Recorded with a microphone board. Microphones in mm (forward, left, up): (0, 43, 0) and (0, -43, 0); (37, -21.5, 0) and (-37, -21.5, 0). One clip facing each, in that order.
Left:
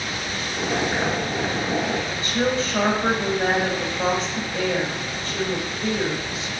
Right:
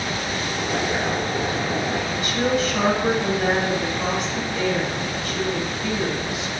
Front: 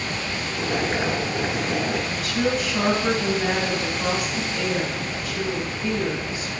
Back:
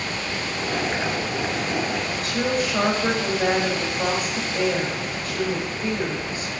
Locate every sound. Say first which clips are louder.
0.6 s boiling: left 2 dB, front 2 dB; 85° left, 3 m
2.1 s a woman speaking: right 1 dB, front 1 dB; 140° left, 3.5 m